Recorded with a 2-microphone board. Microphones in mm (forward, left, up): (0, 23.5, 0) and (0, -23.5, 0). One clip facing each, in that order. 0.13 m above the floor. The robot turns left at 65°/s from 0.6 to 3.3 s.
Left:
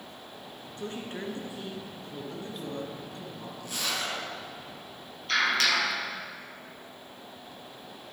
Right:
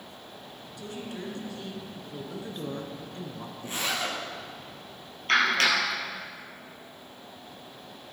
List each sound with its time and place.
0.8 s a woman speaking: 80° left, 1.8 m; by 3.9 s 85° right, 1.8 m
3.6 s a zipper: 30° right (ahead or behind), 2 m
5.3 s a clap: 45° right (ahead or behind), 3 m